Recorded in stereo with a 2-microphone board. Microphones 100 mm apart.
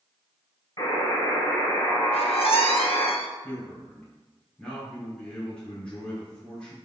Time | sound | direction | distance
0.8 | a buzzer | 30° left (ahead or behind) | 3 m
2.1 | a squeak | 65° left (ahead or behind) | 1.0 m
3.4 | a man speaking | 10° left (ahead or behind) | 2.5 m